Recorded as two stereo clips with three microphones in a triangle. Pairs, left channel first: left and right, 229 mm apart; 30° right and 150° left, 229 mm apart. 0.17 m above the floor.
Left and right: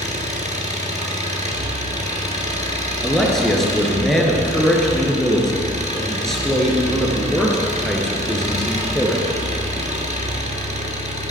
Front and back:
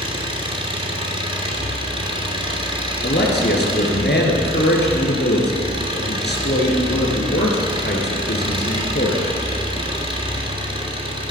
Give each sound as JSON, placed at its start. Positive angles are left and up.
{"t": 0.0, "sound": "an engine running", "azimuth_deg": -145, "distance_m": 1.7}
{"t": 3.0, "sound": "a man speaking", "azimuth_deg": 0, "distance_m": 2.5}